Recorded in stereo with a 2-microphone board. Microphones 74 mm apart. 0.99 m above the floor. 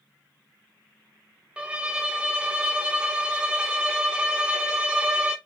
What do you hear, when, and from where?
1.6 s a violin: 15° right (ahead or behind), 0.7 m